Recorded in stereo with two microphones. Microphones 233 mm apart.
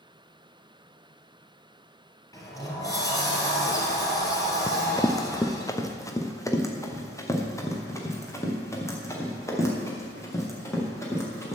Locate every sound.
2.3 s a sliding door: 15° left (ahead or behind), 2.5 m
4.7 s running footsteps: 15° left (ahead or behind), 0.8 m; by 11.6 s 10° left (ahead or behind), 4.5 m